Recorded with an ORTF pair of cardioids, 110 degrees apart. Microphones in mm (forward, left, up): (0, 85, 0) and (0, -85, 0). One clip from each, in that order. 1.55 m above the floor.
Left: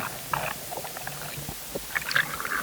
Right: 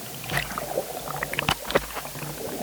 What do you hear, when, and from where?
Only background noise.